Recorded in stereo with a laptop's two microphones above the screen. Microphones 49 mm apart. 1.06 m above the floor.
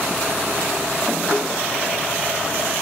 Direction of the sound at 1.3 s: 20° left (ahead or behind).